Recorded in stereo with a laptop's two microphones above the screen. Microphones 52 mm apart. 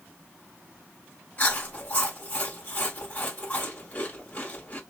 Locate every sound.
1.4 s chewing: 30° left (ahead or behind), 1.3 m